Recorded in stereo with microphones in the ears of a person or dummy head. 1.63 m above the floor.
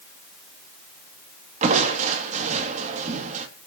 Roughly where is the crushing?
Right.